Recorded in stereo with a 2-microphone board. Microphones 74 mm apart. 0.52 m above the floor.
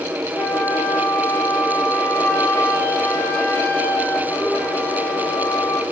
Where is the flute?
25° left (ahead or behind), 2 m.